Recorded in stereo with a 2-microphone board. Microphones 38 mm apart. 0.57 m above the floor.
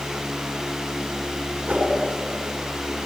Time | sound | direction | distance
1.7 | a whoosh | 25° right (ahead or behind) | 5.5 m